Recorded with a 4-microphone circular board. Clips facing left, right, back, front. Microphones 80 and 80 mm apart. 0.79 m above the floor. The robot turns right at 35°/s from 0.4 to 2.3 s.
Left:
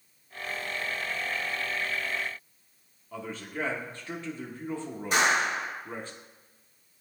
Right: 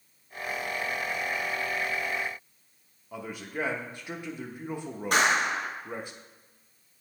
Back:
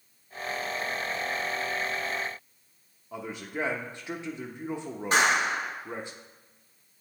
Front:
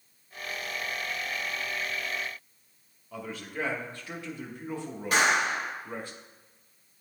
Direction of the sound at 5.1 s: 120° right.